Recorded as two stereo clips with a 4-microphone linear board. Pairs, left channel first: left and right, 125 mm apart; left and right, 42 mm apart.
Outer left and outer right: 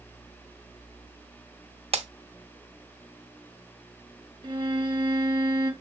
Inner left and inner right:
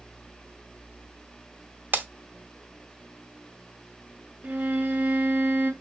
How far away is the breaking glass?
About 0.6 m.